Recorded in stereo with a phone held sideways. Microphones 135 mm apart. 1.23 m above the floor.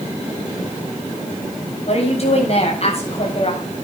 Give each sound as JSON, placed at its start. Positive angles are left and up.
{"t": 1.9, "sound": "a woman speaking", "side_deg": 50, "distance_m": 8.0}